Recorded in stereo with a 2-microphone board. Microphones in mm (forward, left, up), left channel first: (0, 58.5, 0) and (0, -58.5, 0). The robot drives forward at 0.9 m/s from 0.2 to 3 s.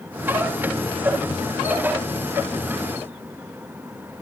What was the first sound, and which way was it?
Only background noise.